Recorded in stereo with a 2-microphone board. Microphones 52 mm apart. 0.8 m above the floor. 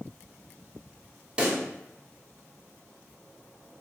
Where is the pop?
20° right (ahead or behind), 0.5 m.